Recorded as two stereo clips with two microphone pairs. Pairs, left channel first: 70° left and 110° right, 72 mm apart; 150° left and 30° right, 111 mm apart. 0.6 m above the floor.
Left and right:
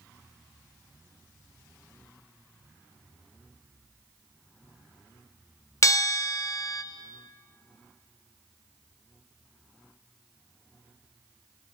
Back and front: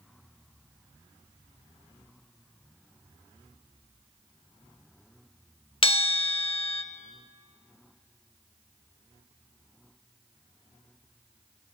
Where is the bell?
115° left, 0.5 m.